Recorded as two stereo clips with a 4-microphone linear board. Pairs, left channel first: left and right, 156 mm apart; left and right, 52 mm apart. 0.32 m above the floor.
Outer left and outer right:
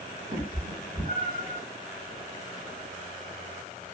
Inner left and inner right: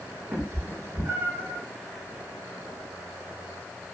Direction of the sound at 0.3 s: 65° right (ahead or behind).